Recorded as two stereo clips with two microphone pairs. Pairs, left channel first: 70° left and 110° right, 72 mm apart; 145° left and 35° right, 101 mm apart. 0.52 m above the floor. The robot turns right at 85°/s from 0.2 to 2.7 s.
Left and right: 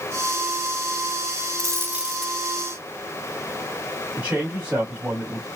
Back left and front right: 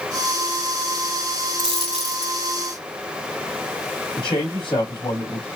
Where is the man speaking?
Straight behind, 3.5 m.